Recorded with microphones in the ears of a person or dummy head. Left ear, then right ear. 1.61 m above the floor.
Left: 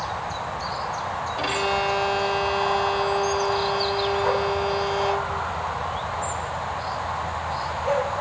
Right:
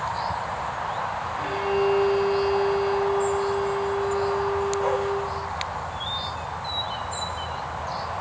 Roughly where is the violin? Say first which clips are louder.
Left 1 dB; left.